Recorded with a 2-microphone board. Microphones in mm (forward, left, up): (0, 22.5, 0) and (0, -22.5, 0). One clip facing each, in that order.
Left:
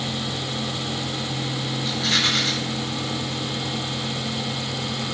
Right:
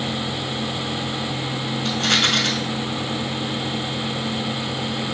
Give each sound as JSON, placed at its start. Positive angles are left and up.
{"t": 1.9, "sound": "a rattle", "side_deg": -70, "distance_m": 1.6}